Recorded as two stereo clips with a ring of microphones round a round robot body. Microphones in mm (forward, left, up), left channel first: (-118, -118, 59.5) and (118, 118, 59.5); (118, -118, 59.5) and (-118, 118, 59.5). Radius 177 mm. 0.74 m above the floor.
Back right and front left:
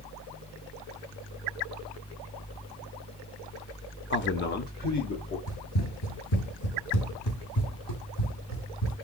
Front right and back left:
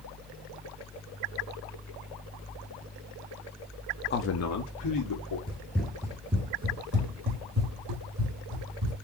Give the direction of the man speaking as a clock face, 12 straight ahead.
3 o'clock.